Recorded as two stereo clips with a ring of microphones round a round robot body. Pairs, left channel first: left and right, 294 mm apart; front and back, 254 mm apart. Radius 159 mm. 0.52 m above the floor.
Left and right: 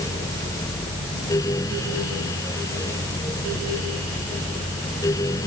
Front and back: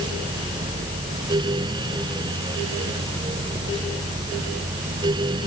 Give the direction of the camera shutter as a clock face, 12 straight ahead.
I don't hear a camera shutter.